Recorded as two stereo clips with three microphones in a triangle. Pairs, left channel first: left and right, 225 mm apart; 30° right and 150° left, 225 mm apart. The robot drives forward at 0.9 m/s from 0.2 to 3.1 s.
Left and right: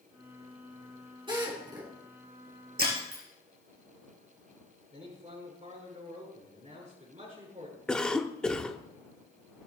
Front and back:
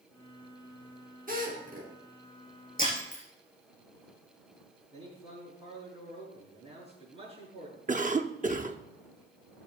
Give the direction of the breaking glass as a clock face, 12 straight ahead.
3 o'clock.